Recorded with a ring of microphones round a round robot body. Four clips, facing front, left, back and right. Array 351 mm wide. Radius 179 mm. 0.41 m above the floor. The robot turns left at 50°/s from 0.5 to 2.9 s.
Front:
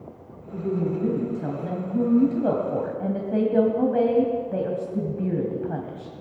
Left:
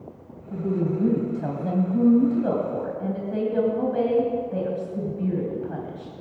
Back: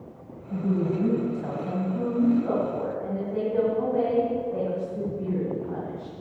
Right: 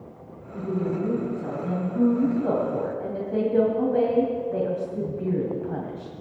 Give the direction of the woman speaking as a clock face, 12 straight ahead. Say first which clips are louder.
Left 2 dB, even; 8 o'clock.